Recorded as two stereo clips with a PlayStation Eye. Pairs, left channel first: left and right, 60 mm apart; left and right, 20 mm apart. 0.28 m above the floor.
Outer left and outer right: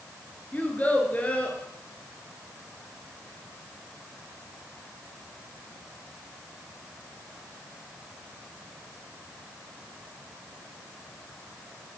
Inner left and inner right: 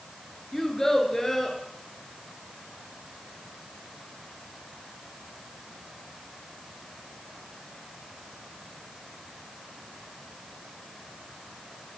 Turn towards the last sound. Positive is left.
turn(degrees=30)  # may be behind; listen again after turning